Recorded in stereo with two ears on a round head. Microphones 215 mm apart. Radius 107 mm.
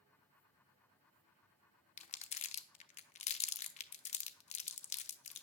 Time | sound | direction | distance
2.0 | crumpling | 30° left (ahead or behind) | 0.7 m